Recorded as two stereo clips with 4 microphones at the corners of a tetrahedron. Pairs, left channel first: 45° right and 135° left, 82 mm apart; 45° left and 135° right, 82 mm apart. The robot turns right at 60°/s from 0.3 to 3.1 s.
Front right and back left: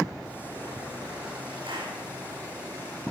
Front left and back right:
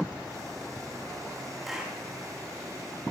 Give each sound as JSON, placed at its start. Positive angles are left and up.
{"t": 1.7, "sound": "a clap", "azimuth_deg": 135, "distance_m": 8.0}